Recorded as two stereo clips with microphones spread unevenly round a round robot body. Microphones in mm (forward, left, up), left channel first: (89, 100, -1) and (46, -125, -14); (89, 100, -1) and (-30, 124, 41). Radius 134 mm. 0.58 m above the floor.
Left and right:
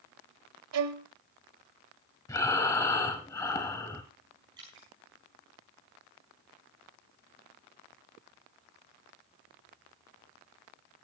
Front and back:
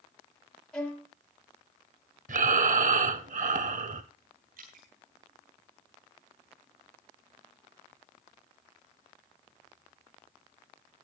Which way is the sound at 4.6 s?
175° right.